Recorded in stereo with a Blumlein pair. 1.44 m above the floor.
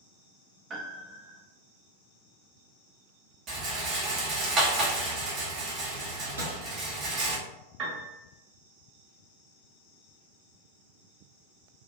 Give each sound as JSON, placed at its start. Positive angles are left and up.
{"t": 0.7, "sound": "a piano", "azimuth_deg": -20, "distance_m": 0.6}
{"t": 3.5, "sound": "a rattle", "azimuth_deg": -25, "distance_m": 0.8}
{"t": 6.4, "sound": "a microwave", "azimuth_deg": -70, "distance_m": 0.9}
{"t": 7.8, "sound": "a piano", "azimuth_deg": -25, "distance_m": 1.1}